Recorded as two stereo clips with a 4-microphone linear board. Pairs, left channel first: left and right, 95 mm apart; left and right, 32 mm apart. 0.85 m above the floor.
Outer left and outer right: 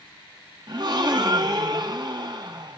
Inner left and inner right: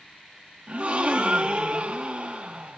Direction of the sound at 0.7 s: 45° right (ahead or behind).